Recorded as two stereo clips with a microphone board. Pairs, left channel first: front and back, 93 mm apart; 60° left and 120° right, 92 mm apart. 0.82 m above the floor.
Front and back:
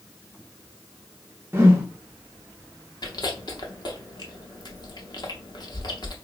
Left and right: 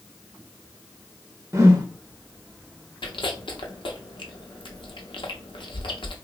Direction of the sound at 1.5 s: 145° right.